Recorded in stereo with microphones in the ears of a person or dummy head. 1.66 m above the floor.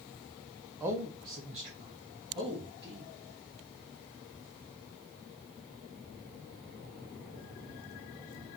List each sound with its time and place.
0.8 s a man speaking: 15° right (ahead or behind), 0.6 m